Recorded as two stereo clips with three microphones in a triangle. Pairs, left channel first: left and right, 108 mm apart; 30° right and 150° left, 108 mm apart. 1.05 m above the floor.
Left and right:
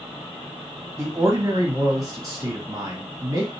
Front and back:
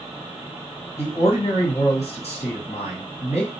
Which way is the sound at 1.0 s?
30° right.